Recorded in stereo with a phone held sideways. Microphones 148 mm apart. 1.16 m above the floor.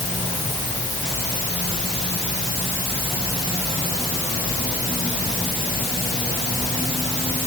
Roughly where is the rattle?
I don't hear a rattle.